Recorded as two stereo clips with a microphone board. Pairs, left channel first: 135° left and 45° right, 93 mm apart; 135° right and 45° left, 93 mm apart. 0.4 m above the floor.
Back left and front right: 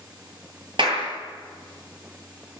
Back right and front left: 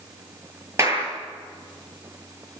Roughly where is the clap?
Ahead.